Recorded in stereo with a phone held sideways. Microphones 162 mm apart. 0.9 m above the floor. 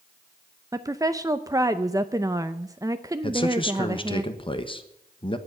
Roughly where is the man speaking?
Left.